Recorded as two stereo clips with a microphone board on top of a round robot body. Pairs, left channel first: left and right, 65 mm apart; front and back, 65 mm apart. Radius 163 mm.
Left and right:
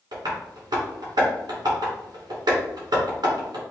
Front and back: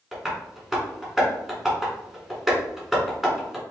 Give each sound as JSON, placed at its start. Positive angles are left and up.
{"t": 0.1, "sound": "tapping", "azimuth_deg": -95, "distance_m": 1.9}